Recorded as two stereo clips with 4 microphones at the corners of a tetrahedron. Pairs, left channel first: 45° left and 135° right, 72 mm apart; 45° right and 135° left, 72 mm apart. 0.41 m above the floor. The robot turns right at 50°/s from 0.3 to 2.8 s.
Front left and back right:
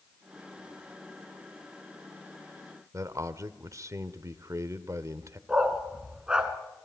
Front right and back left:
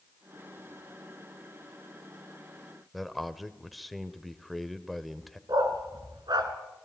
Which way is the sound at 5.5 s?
145° left.